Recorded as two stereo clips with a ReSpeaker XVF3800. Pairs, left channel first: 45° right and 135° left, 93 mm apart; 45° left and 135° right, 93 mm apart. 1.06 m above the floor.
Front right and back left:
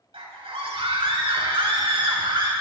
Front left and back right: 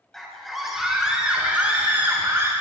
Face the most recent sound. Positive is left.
turn(degrees=160)